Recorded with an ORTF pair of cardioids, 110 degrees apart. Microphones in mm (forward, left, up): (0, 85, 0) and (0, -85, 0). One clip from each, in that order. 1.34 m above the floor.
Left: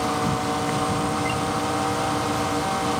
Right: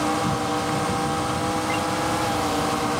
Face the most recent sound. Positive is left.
turn(degrees=5)